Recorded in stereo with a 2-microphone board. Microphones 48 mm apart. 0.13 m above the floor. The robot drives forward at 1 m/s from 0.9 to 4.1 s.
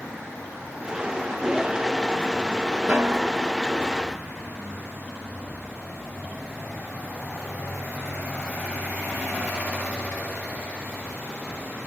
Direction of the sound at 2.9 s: 35° right (ahead or behind).